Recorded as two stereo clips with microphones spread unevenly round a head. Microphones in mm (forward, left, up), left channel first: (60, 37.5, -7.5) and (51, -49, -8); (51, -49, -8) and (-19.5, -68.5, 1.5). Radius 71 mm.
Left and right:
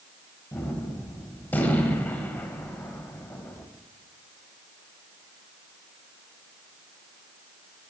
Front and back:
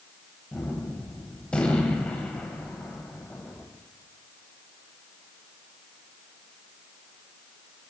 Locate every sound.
0.5 s a gunshot: 85° left, 0.8 m